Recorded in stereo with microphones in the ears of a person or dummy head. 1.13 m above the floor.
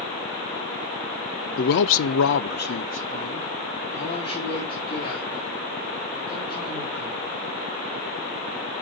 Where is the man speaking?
50° left (ahead or behind), 0.7 m; by 7.3 s 20° left (ahead or behind), 6 m.